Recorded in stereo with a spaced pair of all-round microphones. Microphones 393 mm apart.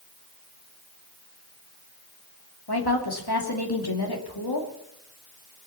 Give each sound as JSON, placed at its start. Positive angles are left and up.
{"t": 2.7, "sound": "a woman speaking", "side_deg": 75, "distance_m": 2.5}